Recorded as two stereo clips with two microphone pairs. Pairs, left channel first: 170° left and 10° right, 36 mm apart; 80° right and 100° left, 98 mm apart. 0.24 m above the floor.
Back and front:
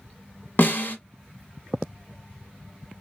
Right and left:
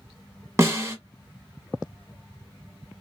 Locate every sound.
0.6 s a snare drum: 155° left, 0.9 m